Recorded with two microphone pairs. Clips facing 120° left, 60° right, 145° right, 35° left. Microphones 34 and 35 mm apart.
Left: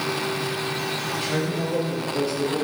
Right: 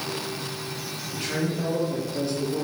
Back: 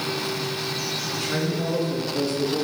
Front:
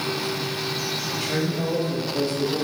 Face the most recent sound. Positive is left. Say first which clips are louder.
# right 1 dB, even
turn(degrees=80)